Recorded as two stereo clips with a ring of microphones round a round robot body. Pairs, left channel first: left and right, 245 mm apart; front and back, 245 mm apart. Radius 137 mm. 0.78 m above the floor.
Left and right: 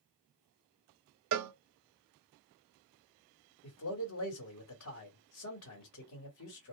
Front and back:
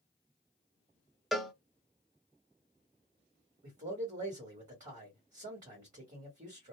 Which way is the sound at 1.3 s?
90° right.